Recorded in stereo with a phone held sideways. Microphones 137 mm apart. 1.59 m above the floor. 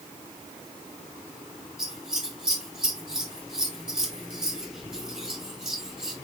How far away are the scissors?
About 3.5 m.